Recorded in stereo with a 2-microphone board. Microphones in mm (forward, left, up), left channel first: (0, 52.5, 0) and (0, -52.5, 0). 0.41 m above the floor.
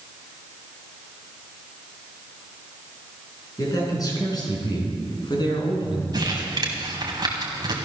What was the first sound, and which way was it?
A man speaking, 35° left (ahead or behind).